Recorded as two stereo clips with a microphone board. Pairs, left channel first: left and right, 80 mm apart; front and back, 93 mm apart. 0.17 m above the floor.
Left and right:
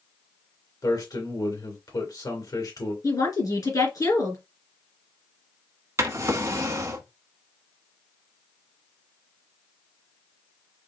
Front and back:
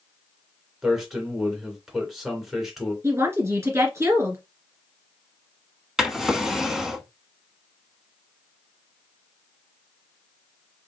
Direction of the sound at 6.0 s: 100° right.